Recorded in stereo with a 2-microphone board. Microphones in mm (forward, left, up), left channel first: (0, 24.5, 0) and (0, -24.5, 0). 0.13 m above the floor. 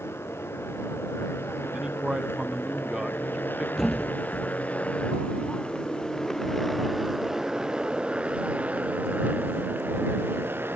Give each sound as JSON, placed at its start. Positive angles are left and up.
{"t": 0.0, "sound": "a motorcycle", "side_deg": 60}
{"t": 1.7, "sound": "a man speaking", "side_deg": -20}
{"t": 3.8, "sound": "a thud", "side_deg": 5}